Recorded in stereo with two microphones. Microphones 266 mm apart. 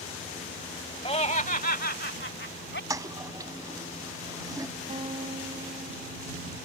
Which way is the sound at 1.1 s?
20° left (ahead or behind).